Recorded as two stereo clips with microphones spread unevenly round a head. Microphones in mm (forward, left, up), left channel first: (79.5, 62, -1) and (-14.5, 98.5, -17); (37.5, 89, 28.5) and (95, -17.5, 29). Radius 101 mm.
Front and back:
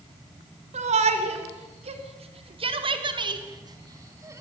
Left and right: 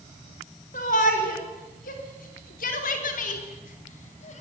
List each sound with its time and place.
0.7 s a shout: 165° left, 4.5 m; by 4.4 s 95° left, 4 m